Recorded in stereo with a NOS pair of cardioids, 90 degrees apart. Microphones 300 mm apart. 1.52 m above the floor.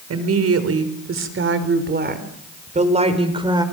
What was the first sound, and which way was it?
A woman speaking, 55° right.